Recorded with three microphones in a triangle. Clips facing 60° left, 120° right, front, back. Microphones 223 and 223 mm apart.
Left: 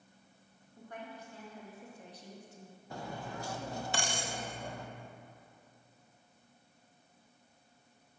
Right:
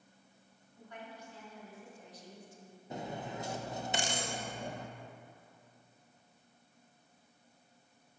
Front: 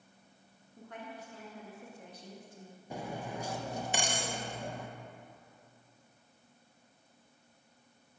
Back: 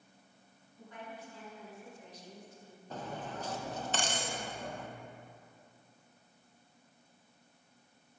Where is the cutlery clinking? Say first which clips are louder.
Right 2 dB, front 2 dB; 70° right, 0.8 m.